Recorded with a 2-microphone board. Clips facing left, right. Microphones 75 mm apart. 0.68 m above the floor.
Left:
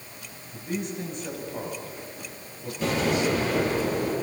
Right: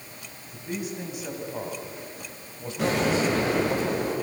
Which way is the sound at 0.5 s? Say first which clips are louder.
Left 1 dB; centre (ahead or behind).